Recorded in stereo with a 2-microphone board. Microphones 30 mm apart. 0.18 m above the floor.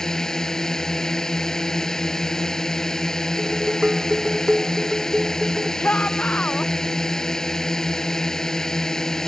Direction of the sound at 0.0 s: 20° left (ahead or behind).